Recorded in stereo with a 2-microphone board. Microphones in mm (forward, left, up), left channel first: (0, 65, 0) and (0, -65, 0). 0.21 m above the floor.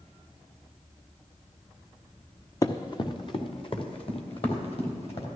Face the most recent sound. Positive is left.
turn(degrees=45)  # may be behind; listen again after turning